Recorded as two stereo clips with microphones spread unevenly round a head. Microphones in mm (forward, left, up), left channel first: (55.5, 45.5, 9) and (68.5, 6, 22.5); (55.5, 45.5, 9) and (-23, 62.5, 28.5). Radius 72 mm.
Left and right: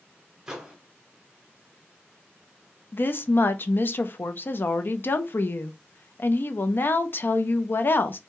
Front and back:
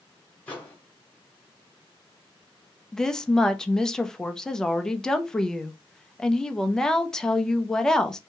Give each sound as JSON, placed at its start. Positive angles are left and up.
{"t": 0.5, "sound": "a microwave", "azimuth_deg": -105, "distance_m": 0.5}
{"t": 2.9, "sound": "a woman speaking", "azimuth_deg": 70, "distance_m": 0.5}